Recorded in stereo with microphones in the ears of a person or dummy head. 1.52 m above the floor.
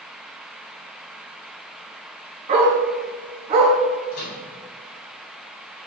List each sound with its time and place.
2.5 s a dog barking: 35° right (ahead or behind), 5.5 m
4.1 s a microwave: 55° left (ahead or behind), 5 m